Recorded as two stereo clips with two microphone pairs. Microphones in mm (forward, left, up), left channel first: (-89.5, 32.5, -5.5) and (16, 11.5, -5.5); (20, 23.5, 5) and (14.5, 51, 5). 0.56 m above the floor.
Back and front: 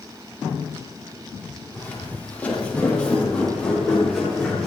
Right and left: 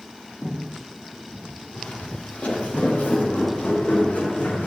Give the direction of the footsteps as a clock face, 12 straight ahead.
4 o'clock.